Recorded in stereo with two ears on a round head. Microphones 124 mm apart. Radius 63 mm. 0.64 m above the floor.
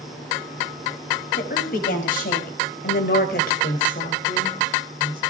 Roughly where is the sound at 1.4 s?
Left.